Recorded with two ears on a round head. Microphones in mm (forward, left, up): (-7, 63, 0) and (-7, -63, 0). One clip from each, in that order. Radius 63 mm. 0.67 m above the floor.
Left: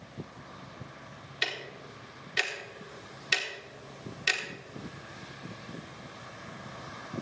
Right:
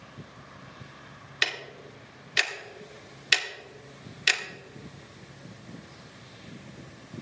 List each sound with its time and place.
1.4 s ticking: 25° right (ahead or behind), 1.0 m